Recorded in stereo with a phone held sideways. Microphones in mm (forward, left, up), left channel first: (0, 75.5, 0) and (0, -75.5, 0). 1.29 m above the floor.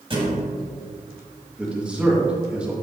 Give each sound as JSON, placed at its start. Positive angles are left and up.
{"t": 0.1, "sound": "a thud", "side_deg": -35, "distance_m": 1.9}
{"t": 1.6, "sound": "a man speaking", "side_deg": -10, "distance_m": 2.0}